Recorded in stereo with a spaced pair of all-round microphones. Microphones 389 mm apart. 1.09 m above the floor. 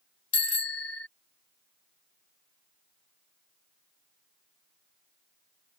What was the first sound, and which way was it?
A bicycle bell, 35° left (ahead or behind).